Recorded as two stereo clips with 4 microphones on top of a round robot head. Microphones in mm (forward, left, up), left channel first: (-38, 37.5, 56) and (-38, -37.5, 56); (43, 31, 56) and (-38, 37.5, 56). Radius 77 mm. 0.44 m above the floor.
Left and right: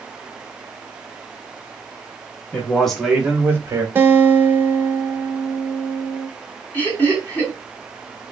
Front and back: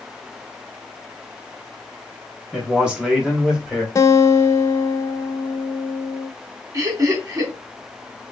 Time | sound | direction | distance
2.5 | a man speaking | 110° left | 1.0 m
4.0 | a guitar | 35° right | 0.6 m
6.7 | laughter | 150° left | 1.8 m